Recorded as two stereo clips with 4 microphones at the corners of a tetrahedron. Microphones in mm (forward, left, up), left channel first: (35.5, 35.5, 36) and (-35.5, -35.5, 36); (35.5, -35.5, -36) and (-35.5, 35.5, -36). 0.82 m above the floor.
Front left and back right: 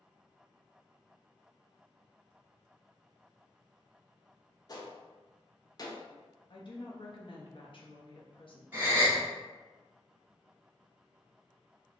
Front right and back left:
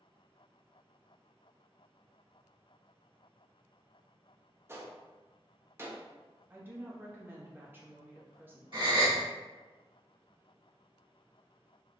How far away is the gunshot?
About 0.6 m.